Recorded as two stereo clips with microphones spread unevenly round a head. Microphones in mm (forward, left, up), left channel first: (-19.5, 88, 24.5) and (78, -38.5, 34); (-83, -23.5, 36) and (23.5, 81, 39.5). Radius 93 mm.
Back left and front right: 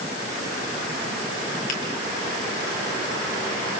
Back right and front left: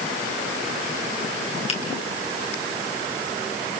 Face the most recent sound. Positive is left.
turn(degrees=175)